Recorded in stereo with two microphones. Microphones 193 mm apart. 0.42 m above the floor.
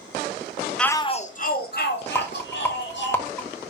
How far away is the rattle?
About 1.5 m.